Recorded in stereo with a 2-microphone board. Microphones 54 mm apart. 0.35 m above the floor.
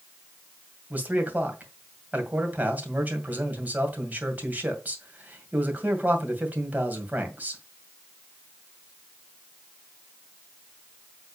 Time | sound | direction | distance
0.9 | a man speaking | 30° right (ahead or behind) | 2 m